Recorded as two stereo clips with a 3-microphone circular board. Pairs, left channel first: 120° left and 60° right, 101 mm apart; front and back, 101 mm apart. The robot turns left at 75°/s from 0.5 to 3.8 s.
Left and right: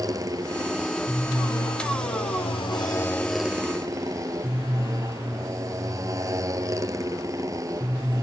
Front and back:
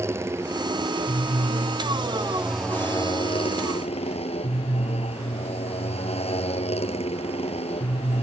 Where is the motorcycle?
115° right; by 8.2 s 5° right.